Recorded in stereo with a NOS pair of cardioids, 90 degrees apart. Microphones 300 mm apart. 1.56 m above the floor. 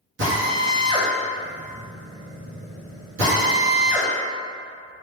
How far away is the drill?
About 1.5 m.